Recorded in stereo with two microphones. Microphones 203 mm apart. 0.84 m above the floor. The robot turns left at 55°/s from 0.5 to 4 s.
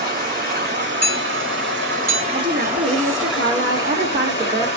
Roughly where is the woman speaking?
Ahead right.